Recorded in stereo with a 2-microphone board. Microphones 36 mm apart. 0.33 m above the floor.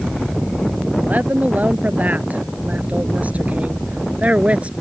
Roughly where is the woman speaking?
Right.